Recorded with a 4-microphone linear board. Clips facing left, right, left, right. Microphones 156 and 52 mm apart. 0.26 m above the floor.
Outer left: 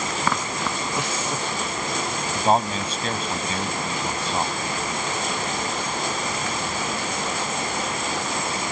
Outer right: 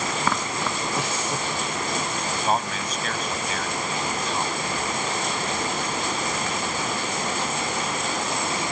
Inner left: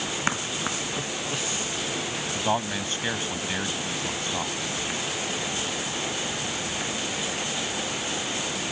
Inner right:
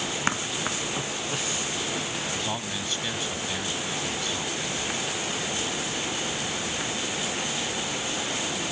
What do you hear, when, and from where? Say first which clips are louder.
2.4 s a man speaking: outer left 6 dB, inner left 5 dB; 30° left (ahead or behind)